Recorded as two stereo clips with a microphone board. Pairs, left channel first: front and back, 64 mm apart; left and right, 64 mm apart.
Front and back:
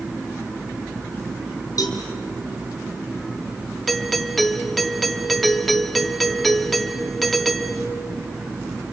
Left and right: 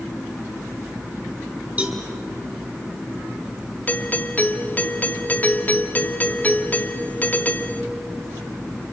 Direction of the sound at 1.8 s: 20° right.